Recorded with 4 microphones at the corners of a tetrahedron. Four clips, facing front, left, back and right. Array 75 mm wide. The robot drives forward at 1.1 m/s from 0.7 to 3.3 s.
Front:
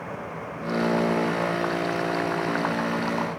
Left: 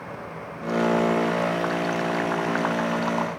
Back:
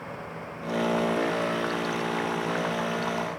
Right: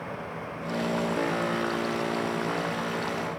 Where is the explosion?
No explosion in this recording.